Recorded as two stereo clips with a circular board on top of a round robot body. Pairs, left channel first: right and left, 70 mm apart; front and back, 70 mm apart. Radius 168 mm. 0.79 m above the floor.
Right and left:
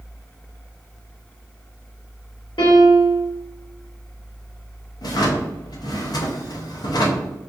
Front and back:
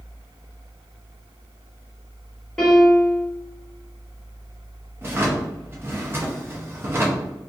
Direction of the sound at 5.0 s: 120° right.